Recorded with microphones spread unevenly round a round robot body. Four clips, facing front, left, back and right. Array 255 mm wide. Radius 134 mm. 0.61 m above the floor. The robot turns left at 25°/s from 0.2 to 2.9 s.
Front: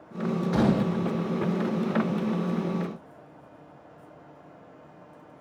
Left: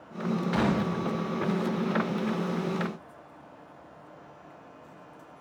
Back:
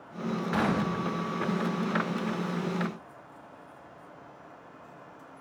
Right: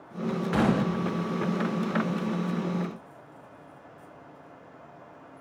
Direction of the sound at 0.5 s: 20° right.